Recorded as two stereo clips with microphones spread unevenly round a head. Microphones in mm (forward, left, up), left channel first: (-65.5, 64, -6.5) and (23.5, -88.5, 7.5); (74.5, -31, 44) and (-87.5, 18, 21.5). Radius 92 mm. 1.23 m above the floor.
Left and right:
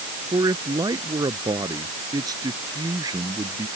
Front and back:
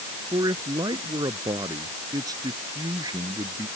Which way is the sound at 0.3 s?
130° right.